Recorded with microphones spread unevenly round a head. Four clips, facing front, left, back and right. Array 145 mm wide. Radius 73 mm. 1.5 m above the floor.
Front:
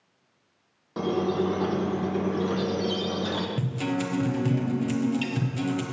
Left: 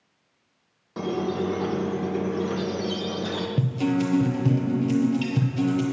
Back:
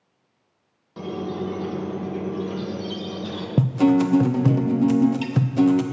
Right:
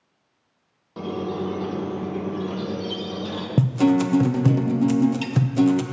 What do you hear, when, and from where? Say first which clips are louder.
1.0 s a squeak: left 1 dB, front 4 dB; 10° left, 1.0 m
3.6 s a guitar: right 7 dB, back 11 dB; 145° right, 0.6 m